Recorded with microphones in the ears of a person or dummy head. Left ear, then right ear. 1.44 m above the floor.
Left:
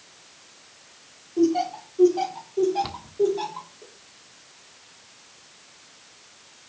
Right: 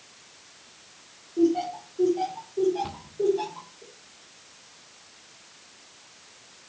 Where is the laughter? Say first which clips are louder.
Left 2 dB; 45° left (ahead or behind), 4 m; by 3.8 s 25° left (ahead or behind), 3.5 m.